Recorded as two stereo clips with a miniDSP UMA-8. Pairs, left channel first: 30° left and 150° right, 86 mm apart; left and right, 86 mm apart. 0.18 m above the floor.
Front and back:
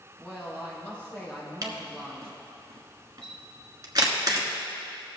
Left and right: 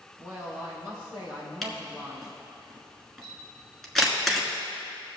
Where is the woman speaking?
100° left, 3 m.